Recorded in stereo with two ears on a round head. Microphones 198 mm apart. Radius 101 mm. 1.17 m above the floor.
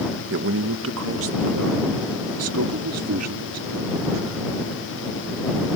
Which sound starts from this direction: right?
A man speaking, at 0.3 s.